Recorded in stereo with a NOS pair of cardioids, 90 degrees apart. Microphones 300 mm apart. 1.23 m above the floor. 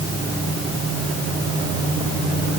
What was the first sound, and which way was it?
Only background noise.